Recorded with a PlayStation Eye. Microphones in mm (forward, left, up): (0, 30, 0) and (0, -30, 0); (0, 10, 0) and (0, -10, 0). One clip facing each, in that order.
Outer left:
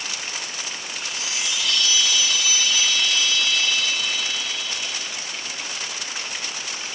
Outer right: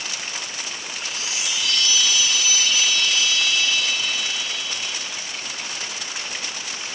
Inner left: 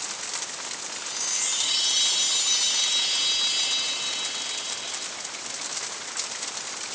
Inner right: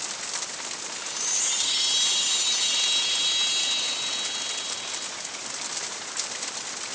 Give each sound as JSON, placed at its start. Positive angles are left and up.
{"t": 0.9, "sound": "a chime", "side_deg": -15, "distance_m": 1.0}